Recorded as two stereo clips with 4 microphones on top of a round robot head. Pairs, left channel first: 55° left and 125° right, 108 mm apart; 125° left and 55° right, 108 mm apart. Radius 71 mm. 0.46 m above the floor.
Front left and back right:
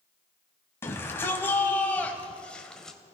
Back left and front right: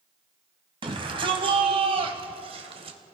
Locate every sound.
0.8 s a shout: 15° right, 4.5 m; by 3.0 s 30° right, 3 m